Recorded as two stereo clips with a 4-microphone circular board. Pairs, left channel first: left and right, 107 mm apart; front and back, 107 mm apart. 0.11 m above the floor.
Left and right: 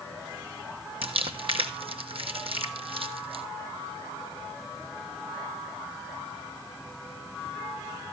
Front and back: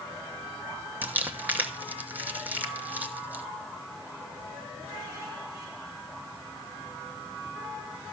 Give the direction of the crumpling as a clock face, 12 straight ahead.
4 o'clock.